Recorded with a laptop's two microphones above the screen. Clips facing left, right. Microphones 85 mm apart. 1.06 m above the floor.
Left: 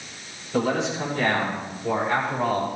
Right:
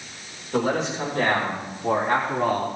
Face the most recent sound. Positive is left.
turn(degrees=-60)  # may be behind; listen again after turning